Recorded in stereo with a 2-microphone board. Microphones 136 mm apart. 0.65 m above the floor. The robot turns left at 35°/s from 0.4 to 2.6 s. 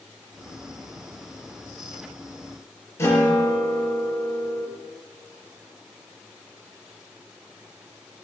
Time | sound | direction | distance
3.0 | a guitar | 20° left (ahead or behind) | 6 m